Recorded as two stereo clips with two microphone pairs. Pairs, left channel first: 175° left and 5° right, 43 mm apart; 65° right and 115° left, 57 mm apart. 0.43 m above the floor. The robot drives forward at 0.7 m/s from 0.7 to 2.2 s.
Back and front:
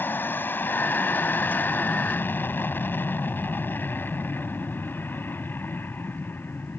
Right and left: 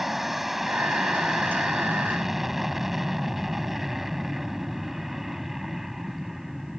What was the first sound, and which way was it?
An aircraft, 160° right.